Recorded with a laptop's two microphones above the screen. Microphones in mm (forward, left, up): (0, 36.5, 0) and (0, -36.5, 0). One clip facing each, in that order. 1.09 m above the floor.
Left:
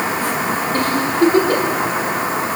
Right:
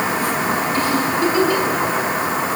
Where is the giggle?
50° left (ahead or behind), 4.5 m.